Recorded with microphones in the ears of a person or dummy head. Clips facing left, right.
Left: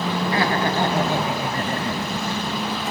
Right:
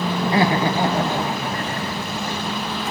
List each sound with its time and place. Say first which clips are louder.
0.2 s laughter: right 4 dB; 35° right (ahead or behind), 1.9 m; by 2.8 s 55° left (ahead or behind), 2.5 m